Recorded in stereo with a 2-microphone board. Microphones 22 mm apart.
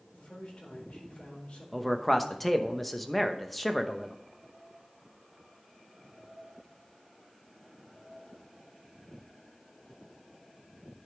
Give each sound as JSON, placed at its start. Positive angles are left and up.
{"t": 0.1, "sound": "a man speaking", "side_deg": 55, "distance_m": 4.0}
{"t": 1.7, "sound": "a man speaking", "side_deg": 5, "distance_m": 0.9}